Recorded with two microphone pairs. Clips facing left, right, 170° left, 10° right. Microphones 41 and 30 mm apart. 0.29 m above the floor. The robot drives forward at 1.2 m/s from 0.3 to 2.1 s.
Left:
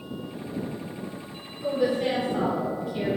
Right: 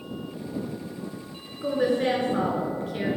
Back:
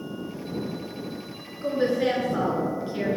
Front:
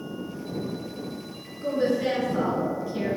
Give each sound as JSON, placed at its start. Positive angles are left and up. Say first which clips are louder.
{"t": 1.6, "sound": "a woman speaking", "louder": "right 1 dB, back 1 dB", "azimuth_deg": -120, "distance_m": 3.0}